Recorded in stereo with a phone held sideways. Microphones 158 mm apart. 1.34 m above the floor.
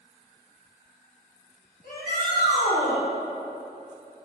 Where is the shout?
65° left (ahead or behind), 1.1 m.